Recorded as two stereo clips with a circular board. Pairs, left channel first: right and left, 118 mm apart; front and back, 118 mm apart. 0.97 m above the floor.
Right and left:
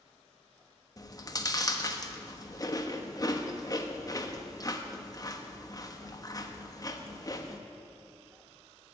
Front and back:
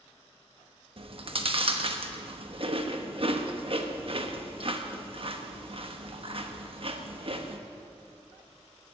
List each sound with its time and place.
1.0 s chewing: 145° right, 1.1 m